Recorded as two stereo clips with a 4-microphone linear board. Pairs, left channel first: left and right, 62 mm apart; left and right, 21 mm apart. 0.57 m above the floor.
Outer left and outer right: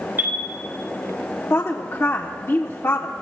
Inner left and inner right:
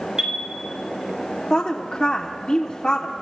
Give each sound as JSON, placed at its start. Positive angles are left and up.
{"t": 0.2, "sound": "a chime", "side_deg": -35, "distance_m": 3.0}
{"t": 1.5, "sound": "a woman speaking", "side_deg": 40, "distance_m": 0.9}